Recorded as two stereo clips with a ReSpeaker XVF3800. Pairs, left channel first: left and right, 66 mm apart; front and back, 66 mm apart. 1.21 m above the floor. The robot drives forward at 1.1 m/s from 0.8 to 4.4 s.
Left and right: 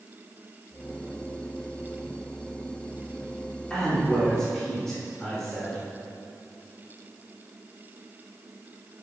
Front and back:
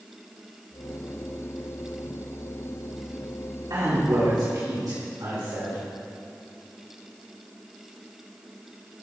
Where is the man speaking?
165° left, 2.5 m; by 5.8 s 170° left, 3.5 m.